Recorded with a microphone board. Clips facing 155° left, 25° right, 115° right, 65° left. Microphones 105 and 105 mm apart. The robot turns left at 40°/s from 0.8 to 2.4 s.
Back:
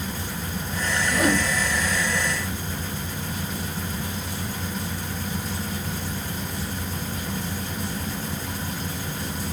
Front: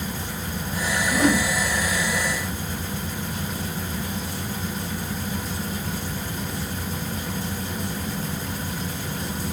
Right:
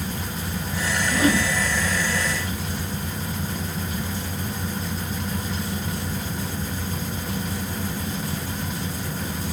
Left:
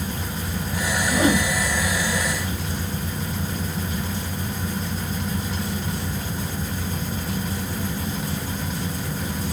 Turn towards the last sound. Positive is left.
turn(degrees=35)